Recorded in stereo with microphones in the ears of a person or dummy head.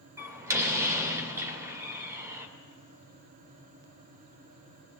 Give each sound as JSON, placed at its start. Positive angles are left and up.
{"t": 0.2, "sound": "a door slam", "side_deg": -15, "distance_m": 3.0}